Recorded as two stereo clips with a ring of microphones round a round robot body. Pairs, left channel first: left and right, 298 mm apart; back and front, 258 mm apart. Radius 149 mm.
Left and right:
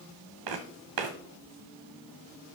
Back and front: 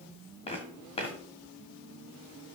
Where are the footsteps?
110° right, 1.5 m.